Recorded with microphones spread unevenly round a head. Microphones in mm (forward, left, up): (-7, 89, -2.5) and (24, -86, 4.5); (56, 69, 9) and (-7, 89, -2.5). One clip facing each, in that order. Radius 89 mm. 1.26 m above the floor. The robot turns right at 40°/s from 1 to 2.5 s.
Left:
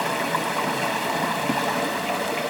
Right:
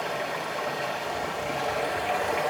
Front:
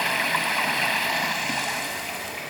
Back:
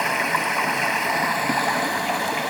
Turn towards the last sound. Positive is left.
turn(degrees=150)